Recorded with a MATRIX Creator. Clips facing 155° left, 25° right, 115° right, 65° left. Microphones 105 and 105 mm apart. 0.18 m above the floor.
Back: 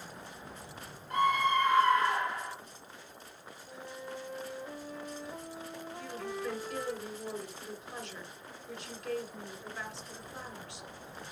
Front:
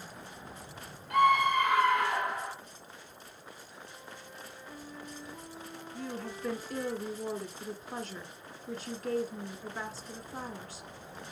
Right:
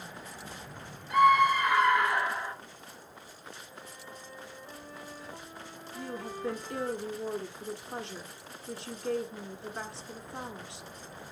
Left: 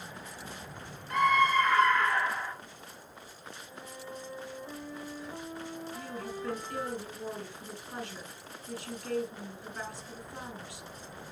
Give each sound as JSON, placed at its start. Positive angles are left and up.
{"t": 1.1, "sound": "a scream", "azimuth_deg": -30, "distance_m": 3.0}
{"t": 3.7, "sound": "a flute", "azimuth_deg": 135, "distance_m": 2.0}
{"t": 5.9, "sound": "a woman speaking", "azimuth_deg": -60, "distance_m": 1.5}